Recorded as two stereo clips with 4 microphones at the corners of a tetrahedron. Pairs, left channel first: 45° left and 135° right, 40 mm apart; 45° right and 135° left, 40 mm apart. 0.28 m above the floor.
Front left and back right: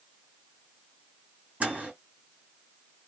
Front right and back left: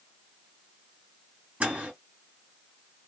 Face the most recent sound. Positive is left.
turn(degrees=-175)